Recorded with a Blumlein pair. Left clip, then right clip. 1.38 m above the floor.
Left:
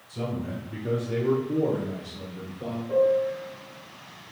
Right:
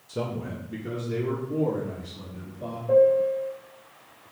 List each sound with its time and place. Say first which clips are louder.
0.1 s a man speaking: right 1 dB; 40° right, 0.6 m; by 2.8 s 50° left, 1.6 m
2.9 s a piano: right 4 dB; 45° right, 0.6 m